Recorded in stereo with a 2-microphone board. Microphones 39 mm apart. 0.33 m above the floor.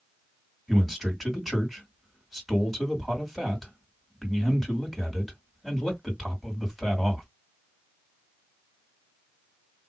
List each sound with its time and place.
0.7 s a man speaking: 5° left (ahead or behind), 2 m